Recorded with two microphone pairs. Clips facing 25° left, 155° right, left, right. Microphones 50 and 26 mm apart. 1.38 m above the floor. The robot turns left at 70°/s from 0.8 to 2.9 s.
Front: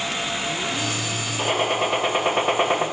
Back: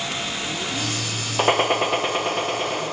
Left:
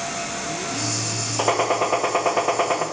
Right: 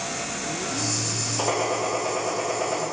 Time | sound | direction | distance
1.4 | a gunshot | 160° left | 0.9 m